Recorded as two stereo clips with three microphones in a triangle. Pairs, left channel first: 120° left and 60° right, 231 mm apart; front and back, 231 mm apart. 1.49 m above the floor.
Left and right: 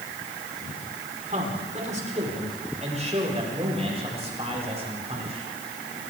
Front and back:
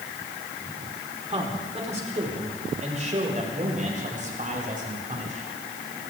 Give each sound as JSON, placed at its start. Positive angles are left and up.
{"t": 1.3, "sound": "a man speaking", "azimuth_deg": -115, "distance_m": 5.0}